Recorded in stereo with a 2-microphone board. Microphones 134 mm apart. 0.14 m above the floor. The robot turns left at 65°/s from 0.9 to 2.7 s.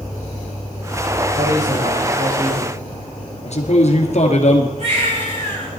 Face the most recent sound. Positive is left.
turn(degrees=-60)  # may be behind; listen again after turning